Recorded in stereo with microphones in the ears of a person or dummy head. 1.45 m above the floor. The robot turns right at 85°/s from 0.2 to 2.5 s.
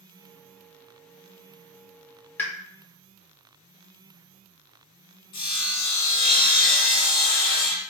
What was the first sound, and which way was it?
A pop, 10° left (ahead or behind).